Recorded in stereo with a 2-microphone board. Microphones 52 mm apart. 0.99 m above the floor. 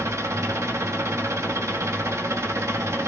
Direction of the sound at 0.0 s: 70° right (ahead or behind).